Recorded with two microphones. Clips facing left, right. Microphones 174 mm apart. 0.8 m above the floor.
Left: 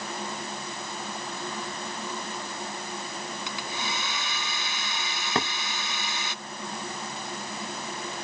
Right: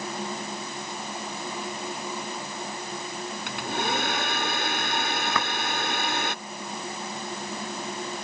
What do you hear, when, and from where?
3.5 s a hair dryer: 60° right (ahead or behind)
5.3 s knocking: 30° left (ahead or behind)